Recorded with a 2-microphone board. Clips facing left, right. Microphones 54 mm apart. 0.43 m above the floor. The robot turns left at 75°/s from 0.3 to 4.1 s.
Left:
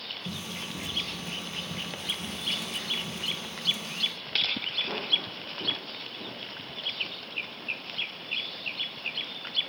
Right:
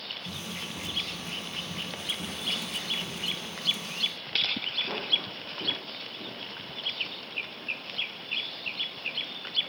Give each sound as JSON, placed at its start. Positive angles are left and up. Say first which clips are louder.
{"t": 0.2, "sound": "running footsteps", "louder": "left 2 dB", "side_deg": 75, "distance_m": 4.0}